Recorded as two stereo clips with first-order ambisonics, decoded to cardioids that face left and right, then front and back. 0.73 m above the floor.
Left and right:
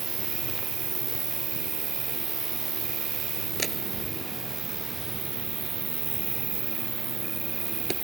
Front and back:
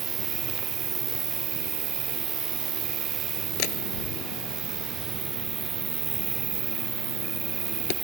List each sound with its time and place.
0.0 s an insect: 140° right
3.6 s a door slam: 15° right